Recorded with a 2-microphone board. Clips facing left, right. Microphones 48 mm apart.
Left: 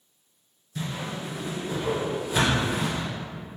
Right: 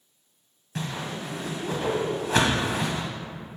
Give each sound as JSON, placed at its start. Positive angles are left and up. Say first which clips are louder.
{"t": 0.8, "sound": "a whoosh", "louder": "right 1 dB", "side_deg": -85, "distance_m": 1.7}